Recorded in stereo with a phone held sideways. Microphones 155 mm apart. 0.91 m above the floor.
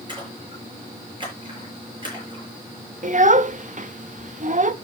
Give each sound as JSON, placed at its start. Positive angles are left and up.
{"t": 0.1, "sound": "a splash", "side_deg": -30, "distance_m": 6.5}
{"t": 3.0, "sound": "a child speaking", "side_deg": -55, "distance_m": 0.8}